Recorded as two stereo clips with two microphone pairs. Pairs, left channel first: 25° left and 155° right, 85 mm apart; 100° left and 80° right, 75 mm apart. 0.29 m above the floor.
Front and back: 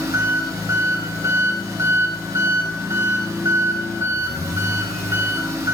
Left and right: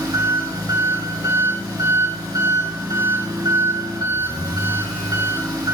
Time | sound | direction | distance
0.0 | an engine running | 105° right | 2.5 m